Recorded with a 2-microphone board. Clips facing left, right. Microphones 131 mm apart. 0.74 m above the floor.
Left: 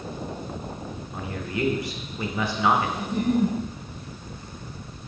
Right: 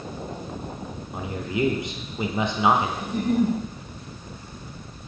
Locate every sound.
1.1 s a man speaking: 20° right (ahead or behind), 0.5 m
3.0 s a giggle: 35° left (ahead or behind), 2 m